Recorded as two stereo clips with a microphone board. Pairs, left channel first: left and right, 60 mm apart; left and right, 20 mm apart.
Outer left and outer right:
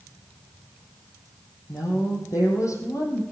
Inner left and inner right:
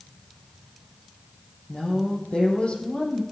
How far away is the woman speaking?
About 4 m.